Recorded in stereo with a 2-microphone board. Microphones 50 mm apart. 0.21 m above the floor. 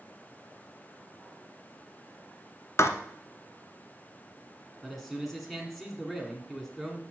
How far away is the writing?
About 0.8 m.